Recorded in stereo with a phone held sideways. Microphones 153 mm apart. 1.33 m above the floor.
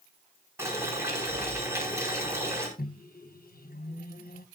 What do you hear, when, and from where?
0.6 s boiling: 15° right (ahead or behind), 5 m
2.8 s a microwave: 75° left (ahead or behind), 0.9 m